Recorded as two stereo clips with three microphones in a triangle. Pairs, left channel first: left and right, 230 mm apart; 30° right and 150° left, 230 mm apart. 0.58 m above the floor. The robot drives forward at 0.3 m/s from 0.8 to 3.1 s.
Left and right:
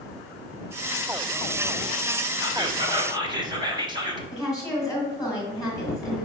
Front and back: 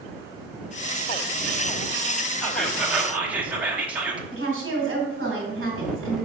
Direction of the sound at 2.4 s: 110° right.